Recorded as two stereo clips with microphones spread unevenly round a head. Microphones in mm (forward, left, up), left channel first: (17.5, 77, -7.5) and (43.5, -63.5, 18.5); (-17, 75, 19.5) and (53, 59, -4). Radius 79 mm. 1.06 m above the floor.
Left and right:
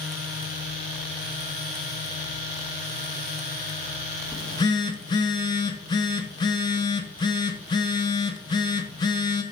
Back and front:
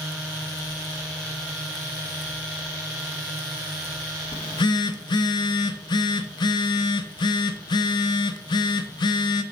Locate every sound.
4.3 s a phone buzzing: 165° left, 0.5 m